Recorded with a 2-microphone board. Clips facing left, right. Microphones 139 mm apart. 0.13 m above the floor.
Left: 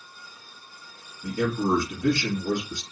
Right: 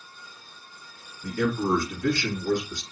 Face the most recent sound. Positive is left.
turn(degrees=20)  # may be behind; listen again after turning